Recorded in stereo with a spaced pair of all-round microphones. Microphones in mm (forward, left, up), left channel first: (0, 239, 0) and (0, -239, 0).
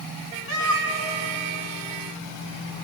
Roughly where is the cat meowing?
Left.